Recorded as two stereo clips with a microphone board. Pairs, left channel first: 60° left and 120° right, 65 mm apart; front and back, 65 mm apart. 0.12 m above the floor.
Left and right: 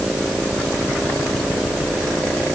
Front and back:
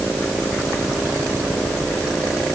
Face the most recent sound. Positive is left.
No sound to turn to.